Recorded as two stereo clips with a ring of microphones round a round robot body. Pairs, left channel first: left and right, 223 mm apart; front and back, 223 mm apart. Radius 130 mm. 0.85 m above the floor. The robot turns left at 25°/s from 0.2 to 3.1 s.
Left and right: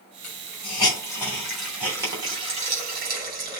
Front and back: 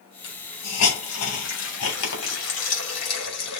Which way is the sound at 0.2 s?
35° left.